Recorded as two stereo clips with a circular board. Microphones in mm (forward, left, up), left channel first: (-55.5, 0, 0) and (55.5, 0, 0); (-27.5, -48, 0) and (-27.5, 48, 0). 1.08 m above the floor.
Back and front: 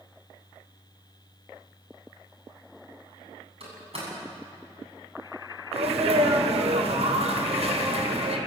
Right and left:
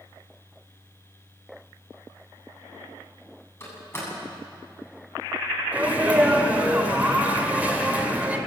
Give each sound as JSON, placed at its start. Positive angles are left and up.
{"t": 3.6, "sound": "a door slam", "azimuth_deg": -25, "distance_m": 8.5}
{"t": 5.7, "sound": "a sneeze", "azimuth_deg": 15, "distance_m": 3.5}